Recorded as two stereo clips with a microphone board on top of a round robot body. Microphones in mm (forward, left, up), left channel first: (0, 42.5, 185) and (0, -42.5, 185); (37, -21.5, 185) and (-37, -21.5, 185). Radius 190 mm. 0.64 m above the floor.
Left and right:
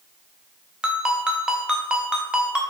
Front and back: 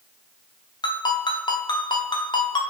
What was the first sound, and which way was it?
A ringtone, 10° right.